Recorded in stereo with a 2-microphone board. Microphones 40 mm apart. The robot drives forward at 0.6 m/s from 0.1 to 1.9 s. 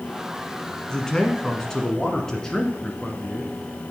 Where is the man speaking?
20° left (ahead or behind), 1.2 m; by 3.5 s 15° left (ahead or behind), 1.4 m.